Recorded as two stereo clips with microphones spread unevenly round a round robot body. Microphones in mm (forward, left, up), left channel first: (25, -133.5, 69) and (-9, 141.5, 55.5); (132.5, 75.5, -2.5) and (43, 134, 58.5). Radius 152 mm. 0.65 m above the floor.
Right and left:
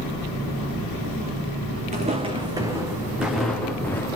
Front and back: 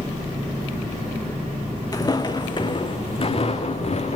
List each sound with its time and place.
1.9 s footsteps: 30° left, 3 m; by 4.2 s 5° right, 3.5 m